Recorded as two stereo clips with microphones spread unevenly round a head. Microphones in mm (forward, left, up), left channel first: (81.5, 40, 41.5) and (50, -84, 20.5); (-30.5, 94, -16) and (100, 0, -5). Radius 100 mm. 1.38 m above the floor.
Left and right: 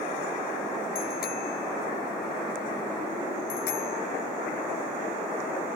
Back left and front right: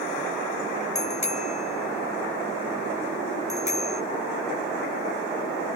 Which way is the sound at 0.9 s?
100° left.